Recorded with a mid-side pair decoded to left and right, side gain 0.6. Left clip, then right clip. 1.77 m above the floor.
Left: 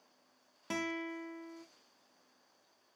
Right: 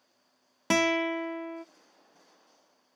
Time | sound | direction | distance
0.7 | a guitar | 60° right | 0.5 m